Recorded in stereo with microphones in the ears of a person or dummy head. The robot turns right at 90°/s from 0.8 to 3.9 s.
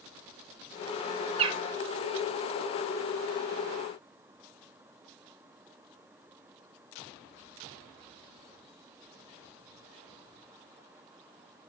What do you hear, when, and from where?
1.4 s a bird: 30° right (ahead or behind), 0.8 m; by 1.6 s 15° right (ahead or behind), 0.8 m